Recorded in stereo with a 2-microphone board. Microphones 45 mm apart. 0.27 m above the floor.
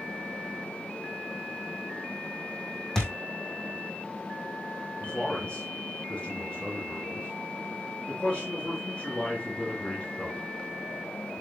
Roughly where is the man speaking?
Left.